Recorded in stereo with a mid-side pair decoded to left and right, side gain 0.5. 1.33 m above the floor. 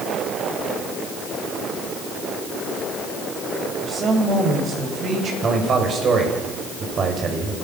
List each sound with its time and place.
3.8 s a woman speaking: 45° right, 8 m; by 5.3 s 50° right, 8 m
5.4 s a man speaking: 45° right, 8 m